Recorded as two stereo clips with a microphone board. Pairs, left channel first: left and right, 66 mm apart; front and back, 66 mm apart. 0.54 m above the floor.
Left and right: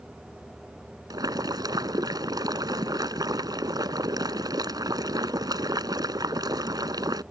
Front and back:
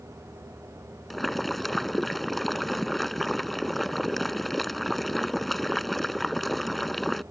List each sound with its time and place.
1.1 s boiling: 90° right